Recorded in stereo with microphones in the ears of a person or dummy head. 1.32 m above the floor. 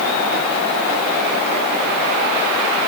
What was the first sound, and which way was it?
Only background noise.